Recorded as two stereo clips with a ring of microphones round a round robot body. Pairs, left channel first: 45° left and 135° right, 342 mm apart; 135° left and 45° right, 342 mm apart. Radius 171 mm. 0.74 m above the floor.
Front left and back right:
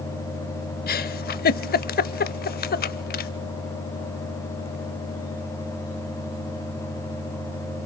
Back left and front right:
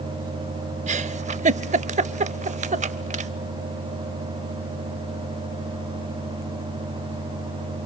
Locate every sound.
0.9 s a giggle: 10° left, 0.5 m